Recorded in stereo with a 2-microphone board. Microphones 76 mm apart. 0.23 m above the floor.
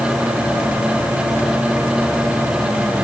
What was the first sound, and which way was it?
Only background noise.